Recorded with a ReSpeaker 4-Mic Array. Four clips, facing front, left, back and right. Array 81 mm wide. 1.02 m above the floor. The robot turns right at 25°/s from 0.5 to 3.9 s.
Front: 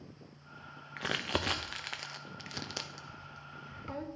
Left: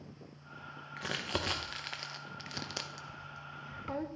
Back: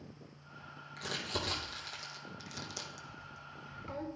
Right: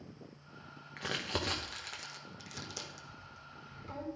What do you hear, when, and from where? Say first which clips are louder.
1.0 s crumpling: even, front 5 dB; straight ahead, 0.7 m; by 4.0 s 75° left, 0.7 m